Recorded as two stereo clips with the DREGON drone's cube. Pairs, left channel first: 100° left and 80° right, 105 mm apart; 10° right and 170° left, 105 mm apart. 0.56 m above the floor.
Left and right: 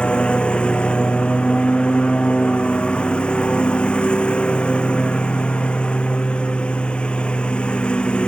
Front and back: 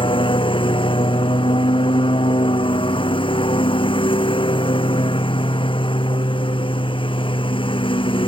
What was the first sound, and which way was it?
A lawn mower, 20° left.